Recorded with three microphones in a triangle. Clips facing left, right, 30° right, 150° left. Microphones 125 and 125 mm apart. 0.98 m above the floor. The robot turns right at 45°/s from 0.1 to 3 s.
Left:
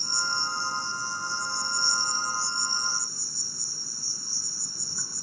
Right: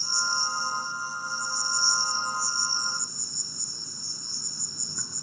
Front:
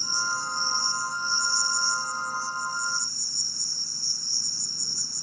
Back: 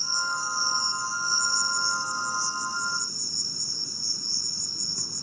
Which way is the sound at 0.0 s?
45° left.